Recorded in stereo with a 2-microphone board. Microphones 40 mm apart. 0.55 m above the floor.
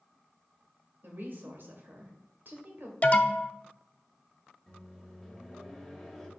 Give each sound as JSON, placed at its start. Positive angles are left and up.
{"t": 1.0, "sound": "a woman speaking", "side_deg": -55, "distance_m": 2.0}
{"t": 3.0, "sound": "an alarm", "side_deg": 35, "distance_m": 0.6}
{"t": 4.7, "sound": "a microwave", "side_deg": -5, "distance_m": 2.5}